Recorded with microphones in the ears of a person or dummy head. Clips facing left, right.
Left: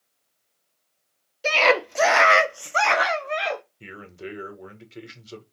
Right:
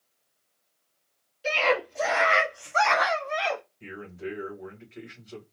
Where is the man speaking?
45° left (ahead or behind), 1.6 m.